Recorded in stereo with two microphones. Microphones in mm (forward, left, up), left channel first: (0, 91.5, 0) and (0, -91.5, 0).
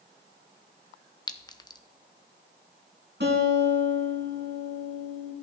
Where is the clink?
20° left (ahead or behind), 0.6 m.